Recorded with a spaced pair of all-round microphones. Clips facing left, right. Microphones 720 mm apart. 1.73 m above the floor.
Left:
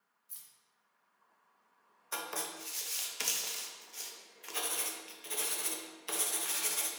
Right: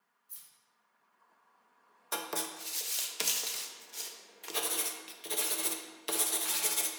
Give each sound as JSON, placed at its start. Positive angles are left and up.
{"t": 0.3, "sound": "keys jangling", "side_deg": 25, "distance_m": 0.6}
{"t": 2.1, "sound": "writing", "side_deg": -70, "distance_m": 0.6}